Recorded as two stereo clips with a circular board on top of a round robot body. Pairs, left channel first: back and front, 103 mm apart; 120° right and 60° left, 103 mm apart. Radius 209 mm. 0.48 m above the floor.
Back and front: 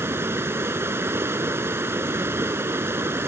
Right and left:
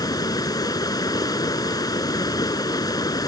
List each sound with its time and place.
0.0 s running water: 65° right